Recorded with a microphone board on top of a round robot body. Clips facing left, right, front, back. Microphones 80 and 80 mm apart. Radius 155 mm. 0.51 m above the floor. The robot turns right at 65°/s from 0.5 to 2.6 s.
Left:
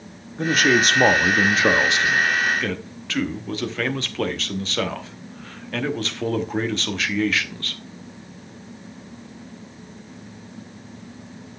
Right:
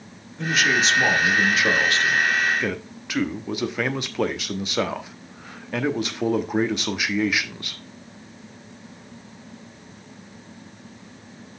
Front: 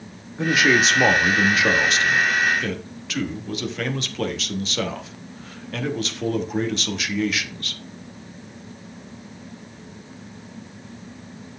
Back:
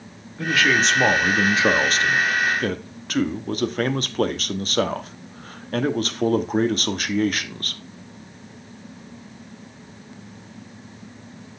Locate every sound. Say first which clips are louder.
0.4 s a man speaking: left 3 dB, front 1 dB; 60° left, 1.2 m; by 7.8 s 160° right, 1.2 m